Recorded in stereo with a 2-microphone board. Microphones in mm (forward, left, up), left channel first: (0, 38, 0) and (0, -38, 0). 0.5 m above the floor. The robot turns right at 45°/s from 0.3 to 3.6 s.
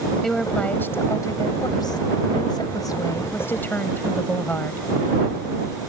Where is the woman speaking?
5° left; by 4.9 s 155° left.